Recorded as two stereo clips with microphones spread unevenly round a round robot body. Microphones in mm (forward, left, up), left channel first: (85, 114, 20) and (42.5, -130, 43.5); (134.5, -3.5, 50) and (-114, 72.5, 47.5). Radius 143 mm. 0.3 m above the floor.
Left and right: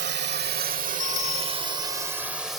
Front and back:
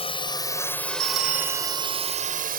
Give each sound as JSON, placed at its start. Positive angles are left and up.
{"t": 0.0, "sound": "a drone", "azimuth_deg": -75}
{"t": 1.0, "sound": "a bell", "azimuth_deg": 130}